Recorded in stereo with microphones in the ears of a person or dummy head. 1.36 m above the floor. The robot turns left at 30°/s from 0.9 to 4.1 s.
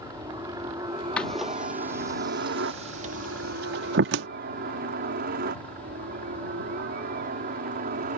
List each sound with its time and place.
0.0 s a helicopter: 25° right (ahead or behind); by 8.2 s 45° right (ahead or behind)
1.2 s a door slam: 5° left (ahead or behind); by 4.3 s 70° right (ahead or behind)